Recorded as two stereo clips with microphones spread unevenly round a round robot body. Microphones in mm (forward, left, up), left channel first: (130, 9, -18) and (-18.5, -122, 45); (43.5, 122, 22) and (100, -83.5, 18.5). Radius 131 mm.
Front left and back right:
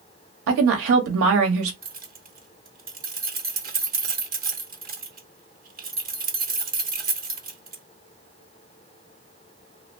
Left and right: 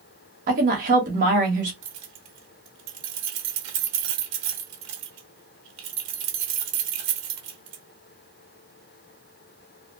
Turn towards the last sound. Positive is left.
turn(degrees=-90)